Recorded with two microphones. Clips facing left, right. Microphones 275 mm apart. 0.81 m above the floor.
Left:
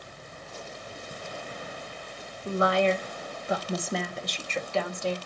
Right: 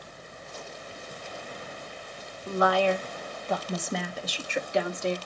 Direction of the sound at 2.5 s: 30° left (ahead or behind).